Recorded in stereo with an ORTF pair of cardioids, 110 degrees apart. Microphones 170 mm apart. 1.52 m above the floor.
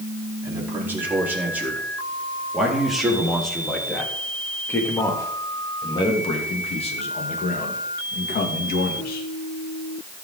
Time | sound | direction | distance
0.4 | a man speaking | 15° right | 5 m